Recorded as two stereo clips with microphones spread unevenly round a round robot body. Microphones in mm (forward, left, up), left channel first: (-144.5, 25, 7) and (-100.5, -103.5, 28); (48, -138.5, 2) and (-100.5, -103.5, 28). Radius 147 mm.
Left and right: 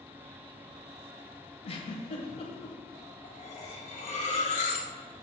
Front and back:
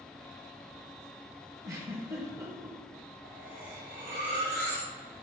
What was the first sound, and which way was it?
A giggle, 90° left.